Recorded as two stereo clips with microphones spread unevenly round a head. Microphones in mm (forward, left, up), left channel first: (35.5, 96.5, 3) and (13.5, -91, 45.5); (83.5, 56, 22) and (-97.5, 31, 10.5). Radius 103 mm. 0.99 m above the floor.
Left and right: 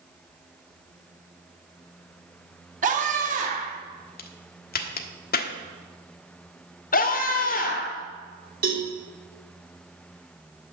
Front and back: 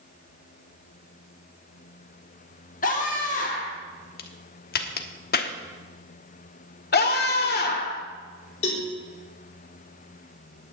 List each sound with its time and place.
2.8 s a scream: 45° right, 2 m
4.2 s a crack: 40° left, 1.3 m
6.9 s a scream: 40° left, 2.5 m
8.6 s a cowbell: 50° right, 4 m